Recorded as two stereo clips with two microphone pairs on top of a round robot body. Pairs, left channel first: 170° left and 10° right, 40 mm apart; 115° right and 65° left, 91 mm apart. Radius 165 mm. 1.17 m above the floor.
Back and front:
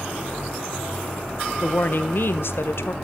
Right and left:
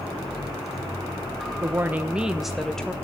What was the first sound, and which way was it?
A woman speaking, 125° left.